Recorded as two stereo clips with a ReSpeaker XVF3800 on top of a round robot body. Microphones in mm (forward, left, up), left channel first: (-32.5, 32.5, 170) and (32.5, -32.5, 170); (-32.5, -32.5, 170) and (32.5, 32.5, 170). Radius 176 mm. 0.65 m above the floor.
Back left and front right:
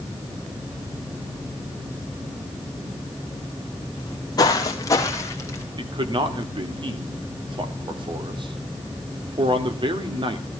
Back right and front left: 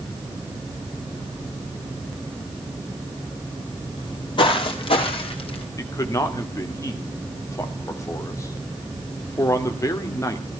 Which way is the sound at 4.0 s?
Straight behind.